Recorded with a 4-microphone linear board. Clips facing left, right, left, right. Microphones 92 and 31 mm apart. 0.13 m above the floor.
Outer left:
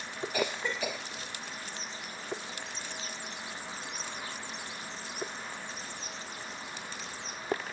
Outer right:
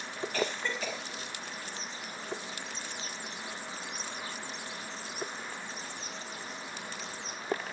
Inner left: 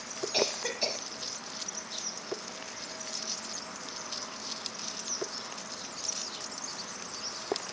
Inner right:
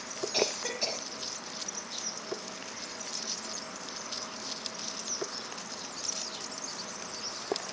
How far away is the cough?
About 5.5 m.